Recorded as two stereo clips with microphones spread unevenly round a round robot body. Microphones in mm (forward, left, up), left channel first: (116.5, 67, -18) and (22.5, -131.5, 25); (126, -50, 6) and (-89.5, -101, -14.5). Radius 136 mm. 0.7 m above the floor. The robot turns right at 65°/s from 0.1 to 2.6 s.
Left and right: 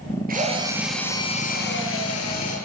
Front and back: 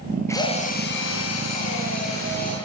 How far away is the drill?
About 9 m.